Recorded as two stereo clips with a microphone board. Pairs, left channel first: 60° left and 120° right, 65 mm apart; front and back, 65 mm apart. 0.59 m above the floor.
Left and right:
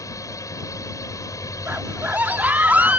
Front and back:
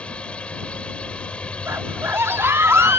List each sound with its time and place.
0.0 s a drone: 70° left
1.7 s a scream: 170° right